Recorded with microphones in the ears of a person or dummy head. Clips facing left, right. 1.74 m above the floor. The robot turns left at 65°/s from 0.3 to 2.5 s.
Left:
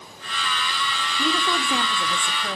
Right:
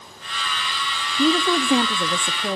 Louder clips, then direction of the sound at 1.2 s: Right 7 dB; 25° right (ahead or behind).